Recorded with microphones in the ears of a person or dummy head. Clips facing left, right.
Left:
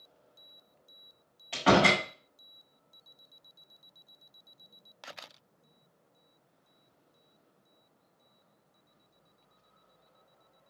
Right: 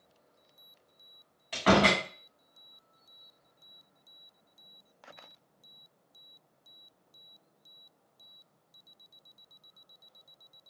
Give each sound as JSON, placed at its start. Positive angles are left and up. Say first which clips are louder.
{"t": 1.5, "sound": "a door slam", "louder": "left 1 dB", "side_deg": 0, "distance_m": 1.6}